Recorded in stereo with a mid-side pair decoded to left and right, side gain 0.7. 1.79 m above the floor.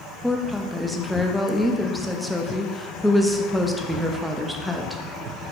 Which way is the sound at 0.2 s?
Straight ahead.